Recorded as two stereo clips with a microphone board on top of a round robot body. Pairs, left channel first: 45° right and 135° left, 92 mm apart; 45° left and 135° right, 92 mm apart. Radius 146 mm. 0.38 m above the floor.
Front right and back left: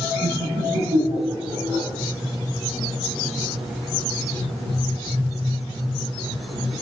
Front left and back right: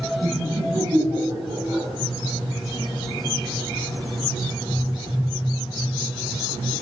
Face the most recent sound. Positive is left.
turn(degrees=145)